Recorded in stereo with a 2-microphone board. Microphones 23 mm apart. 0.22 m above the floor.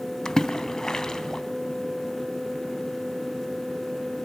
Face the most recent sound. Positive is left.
turn(degrees=25)  # may be behind; listen again after turning